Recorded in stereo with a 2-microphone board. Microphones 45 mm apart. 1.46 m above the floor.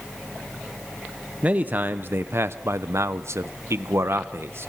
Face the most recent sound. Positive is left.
turn(degrees=-60)  # may be behind; listen again after turning